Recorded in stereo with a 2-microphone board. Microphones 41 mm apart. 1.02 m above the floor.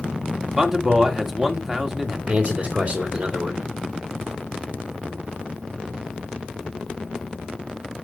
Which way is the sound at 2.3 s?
20° right (ahead or behind).